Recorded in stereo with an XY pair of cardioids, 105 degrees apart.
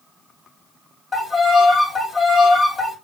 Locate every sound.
1.1 s a violin: 35° left, 2.5 m